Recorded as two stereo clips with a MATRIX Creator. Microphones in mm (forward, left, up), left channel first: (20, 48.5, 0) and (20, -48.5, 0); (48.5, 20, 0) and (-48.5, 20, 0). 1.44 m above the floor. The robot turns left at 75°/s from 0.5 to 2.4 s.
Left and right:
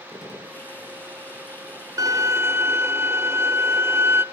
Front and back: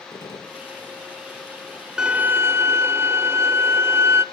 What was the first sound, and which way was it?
A gunshot, 40° left.